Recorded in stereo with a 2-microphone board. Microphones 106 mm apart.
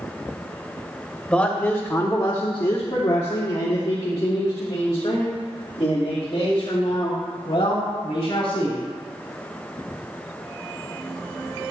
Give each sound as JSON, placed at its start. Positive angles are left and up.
{"t": 1.3, "sound": "a man speaking", "side_deg": 10, "distance_m": 1.0}